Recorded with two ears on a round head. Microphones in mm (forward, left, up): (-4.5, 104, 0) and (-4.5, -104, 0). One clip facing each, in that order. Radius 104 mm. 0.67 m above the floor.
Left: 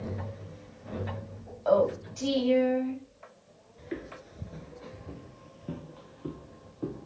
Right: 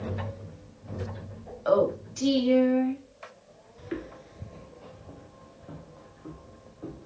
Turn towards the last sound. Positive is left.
turn(degrees=55)  # may be behind; listen again after turning